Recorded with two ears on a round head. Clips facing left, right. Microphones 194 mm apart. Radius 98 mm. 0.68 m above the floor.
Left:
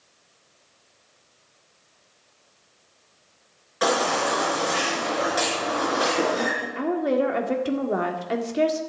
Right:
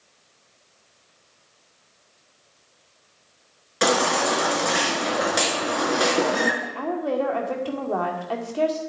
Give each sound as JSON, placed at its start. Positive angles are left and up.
{"t": 3.8, "sound": "a baby crying", "side_deg": -30, "distance_m": 4.0}
{"t": 6.6, "sound": "a woman speaking", "side_deg": 25, "distance_m": 1.8}